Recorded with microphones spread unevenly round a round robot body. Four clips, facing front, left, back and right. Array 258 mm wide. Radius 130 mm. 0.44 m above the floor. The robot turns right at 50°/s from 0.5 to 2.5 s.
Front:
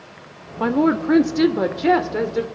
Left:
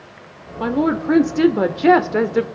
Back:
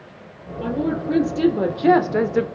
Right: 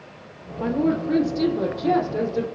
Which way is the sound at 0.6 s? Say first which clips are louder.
Left 3 dB, front 5 dB; 25° left.